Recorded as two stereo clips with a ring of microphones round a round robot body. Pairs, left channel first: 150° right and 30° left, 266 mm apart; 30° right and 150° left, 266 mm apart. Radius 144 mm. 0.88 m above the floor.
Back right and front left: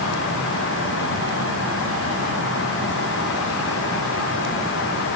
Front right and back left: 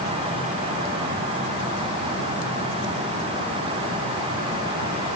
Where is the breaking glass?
No breaking glass in this recording.